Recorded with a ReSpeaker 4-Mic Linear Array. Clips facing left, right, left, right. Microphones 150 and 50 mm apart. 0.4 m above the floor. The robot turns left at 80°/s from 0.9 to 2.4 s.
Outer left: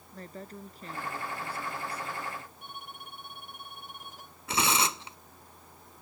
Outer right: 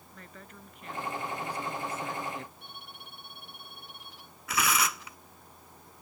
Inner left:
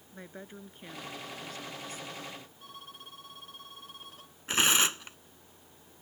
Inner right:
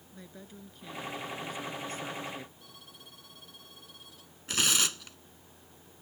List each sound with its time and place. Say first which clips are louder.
0.1 s a woman speaking: outer left 7 dB, inner left 3 dB; 35° left; by 2.5 s 85° right
2.6 s a violin: outer left 4 dB, inner left 5 dB; 45° left (ahead or behind)
4.5 s tearing paper: outer left 1 dB, inner left 3 dB; 30° left (ahead or behind)